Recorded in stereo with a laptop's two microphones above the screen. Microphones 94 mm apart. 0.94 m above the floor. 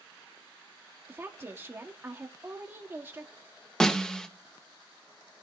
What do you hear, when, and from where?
1.1 s a woman speaking: 25° right (ahead or behind), 1.7 m
3.8 s a snare drum: 10° left (ahead or behind), 0.7 m